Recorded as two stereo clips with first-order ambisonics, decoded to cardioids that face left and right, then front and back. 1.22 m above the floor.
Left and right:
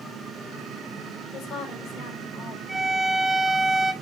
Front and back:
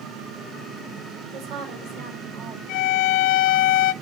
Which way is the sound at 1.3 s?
150° left.